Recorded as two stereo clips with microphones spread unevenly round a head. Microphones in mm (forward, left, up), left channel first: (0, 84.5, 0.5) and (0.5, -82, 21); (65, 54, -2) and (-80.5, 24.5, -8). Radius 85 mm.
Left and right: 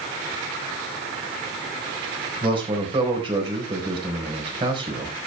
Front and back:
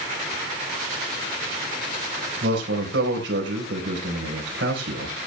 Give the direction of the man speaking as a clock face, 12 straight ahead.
5 o'clock.